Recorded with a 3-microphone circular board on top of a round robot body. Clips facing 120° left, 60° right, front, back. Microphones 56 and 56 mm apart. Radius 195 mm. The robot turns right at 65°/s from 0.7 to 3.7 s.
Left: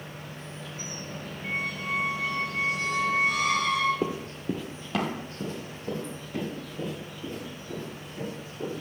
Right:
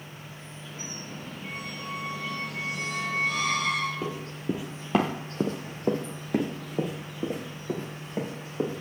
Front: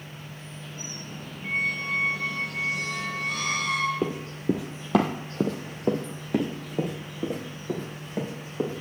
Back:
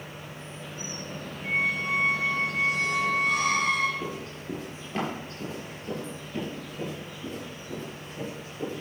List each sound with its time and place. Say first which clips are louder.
0.0 s an insect: left 3 dB, back 2 dB; 105° left, 5.5 m; by 8.8 s 60° right, 5.5 m
1.4 s a squeak: left 7 dB, back 1 dB; 70° left, 5 m; by 3.9 s 140° right, 5 m
4.0 s running footsteps: left 2 dB, front 7 dB; 60° left, 0.8 m; by 8.8 s 35° right, 4 m